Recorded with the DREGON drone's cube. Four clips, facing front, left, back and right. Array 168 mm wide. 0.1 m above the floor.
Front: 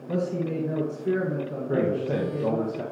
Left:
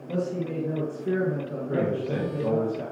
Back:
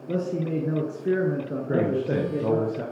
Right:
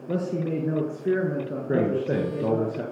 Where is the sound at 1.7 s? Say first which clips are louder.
Right 3 dB, back 1 dB; 120° right, 1.8 m.